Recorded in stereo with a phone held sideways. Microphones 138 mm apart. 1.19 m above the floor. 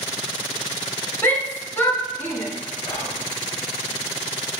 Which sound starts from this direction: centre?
A shout, at 1.2 s.